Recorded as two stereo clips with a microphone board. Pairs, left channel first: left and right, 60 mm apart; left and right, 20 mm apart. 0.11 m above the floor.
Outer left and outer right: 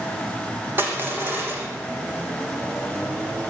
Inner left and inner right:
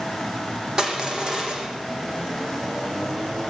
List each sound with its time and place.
0.8 s crushing: 40° right (ahead or behind), 6.5 m